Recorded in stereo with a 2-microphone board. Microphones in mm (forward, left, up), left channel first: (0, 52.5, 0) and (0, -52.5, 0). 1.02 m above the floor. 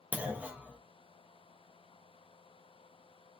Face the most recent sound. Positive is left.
turn(degrees=-15)  # may be behind; listen again after turning